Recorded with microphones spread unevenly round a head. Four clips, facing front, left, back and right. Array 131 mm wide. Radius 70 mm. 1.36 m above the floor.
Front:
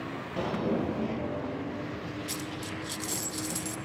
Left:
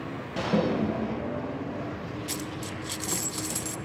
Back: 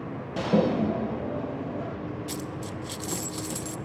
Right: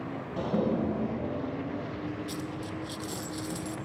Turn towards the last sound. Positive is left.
turn(degrees=125)